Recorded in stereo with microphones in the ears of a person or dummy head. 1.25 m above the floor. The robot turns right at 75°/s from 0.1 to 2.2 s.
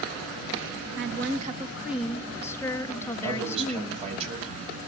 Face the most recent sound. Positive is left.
turn(degrees=-35)  # may be behind; listen again after turning